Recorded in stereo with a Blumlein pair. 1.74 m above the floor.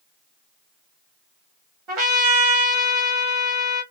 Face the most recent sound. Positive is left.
turn(degrees=-30)